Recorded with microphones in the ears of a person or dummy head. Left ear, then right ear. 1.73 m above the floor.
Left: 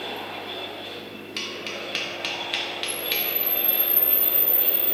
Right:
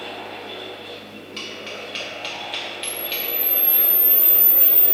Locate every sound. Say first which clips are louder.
0.0 s a fan: even; 10° left (ahead or behind), 1.1 m
1.4 s tapping: left 1 dB; 10° left (ahead or behind), 0.5 m
2.8 s a camera shutter: left 1 dB; 60° right (ahead or behind), 0.5 m